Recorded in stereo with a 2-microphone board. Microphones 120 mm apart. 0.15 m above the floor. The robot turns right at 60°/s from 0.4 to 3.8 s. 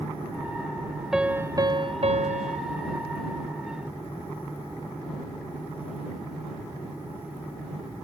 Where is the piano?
175° right; by 2.6 s 90° right.